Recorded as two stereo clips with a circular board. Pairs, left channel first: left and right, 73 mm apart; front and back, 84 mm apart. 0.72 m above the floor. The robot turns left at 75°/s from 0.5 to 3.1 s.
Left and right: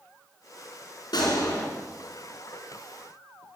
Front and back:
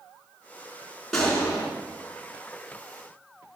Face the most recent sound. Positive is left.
turn(degrees=-65)